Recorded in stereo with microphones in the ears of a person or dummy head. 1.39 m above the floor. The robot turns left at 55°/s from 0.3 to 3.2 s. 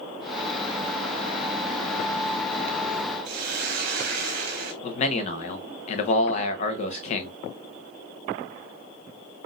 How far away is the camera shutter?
I don't hear a camera shutter.